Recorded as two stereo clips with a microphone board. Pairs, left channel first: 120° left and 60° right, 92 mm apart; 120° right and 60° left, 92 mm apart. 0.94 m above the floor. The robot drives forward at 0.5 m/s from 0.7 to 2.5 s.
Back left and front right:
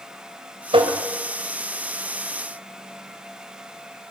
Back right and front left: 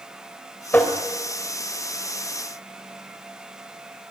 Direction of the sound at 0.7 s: 50° right.